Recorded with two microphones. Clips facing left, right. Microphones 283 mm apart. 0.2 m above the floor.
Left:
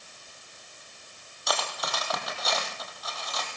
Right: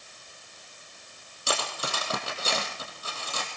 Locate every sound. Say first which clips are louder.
1.5 s cutlery clinking: right 1 dB; 30° right (ahead or behind), 3.5 m